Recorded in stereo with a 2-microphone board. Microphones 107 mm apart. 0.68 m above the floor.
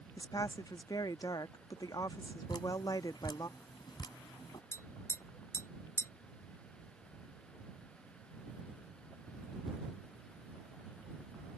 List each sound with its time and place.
0.2 s a woman speaking: 40° left (ahead or behind)
2.5 s dripping: 45° left (ahead or behind)
4.7 s tapping: 25° left (ahead or behind)